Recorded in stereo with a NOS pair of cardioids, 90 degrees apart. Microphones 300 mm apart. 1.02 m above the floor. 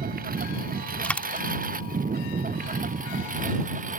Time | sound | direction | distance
0.0 | a lawn mower | 30° right | ?
1.0 | a dropped coin | 5° left | ?